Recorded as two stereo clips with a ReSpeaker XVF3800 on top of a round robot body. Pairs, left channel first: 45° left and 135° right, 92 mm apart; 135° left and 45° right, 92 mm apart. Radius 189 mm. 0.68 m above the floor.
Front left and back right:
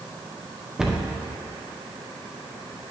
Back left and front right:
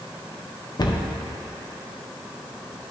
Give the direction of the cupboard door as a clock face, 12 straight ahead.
7 o'clock.